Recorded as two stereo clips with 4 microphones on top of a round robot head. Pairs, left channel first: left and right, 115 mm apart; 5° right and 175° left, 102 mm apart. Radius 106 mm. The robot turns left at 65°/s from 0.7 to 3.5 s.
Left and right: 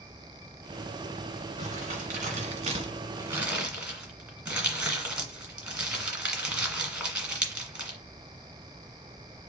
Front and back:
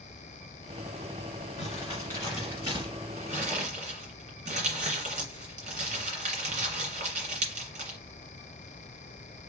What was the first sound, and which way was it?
Crumpling, 45° right.